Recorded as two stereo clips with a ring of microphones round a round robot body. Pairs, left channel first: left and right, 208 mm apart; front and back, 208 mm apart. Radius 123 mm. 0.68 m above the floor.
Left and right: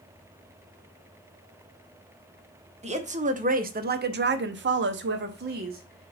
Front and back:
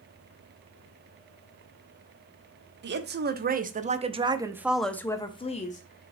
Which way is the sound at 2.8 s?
145° right.